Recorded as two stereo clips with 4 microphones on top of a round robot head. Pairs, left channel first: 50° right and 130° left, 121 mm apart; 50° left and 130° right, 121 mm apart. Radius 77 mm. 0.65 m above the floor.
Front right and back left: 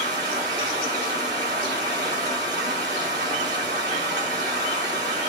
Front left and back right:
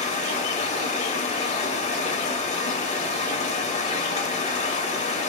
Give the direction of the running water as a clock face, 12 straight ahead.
9 o'clock.